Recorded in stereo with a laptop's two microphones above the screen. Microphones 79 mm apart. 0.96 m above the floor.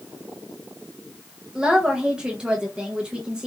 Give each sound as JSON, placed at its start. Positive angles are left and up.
{"t": 1.6, "sound": "a woman speaking", "side_deg": -10, "distance_m": 0.5}